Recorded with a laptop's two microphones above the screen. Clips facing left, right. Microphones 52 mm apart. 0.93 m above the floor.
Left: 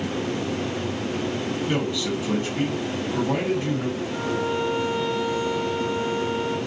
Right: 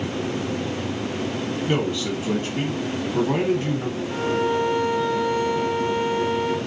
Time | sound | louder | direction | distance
1.7 | a man speaking | right 3 dB | 25° right (ahead or behind) | 1.1 m
4.1 | a violin | right 6 dB | 50° right (ahead or behind) | 0.9 m